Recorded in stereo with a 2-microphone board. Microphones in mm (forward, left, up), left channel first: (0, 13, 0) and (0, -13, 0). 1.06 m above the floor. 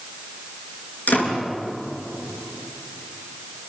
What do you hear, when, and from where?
1.1 s a door slam: 90° left, 9.5 m